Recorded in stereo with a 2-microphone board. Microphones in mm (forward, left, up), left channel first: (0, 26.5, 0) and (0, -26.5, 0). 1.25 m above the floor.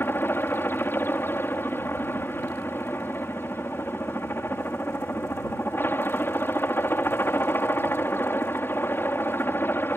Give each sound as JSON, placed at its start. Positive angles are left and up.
{"t": 0.0, "sound": "a helicopter", "side_deg": 45}